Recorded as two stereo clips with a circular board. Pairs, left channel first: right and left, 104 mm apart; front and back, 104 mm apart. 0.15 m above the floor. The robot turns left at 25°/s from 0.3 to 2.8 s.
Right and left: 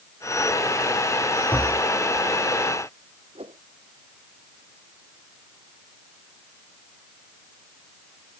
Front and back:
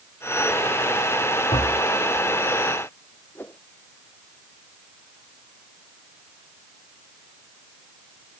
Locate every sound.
1.5 s tapping: 20° right; by 1.9 s 30° right
3.4 s a whoosh: 70° left